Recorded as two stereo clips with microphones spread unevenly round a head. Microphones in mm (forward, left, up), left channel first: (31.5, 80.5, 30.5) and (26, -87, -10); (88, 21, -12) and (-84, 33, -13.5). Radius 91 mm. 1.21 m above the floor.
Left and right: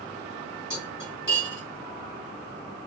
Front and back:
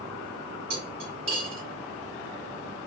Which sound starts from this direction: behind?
Cutlery clinking, at 0.7 s.